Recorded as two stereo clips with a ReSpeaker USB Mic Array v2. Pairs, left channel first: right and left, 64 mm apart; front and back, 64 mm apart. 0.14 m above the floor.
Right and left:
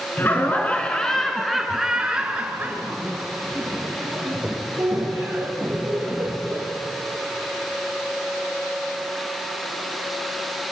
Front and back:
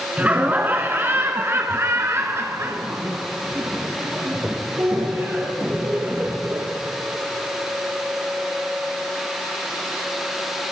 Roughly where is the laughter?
Behind right.